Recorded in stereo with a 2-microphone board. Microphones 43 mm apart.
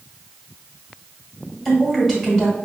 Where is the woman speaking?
Centre (ahead or behind), 1.7 m.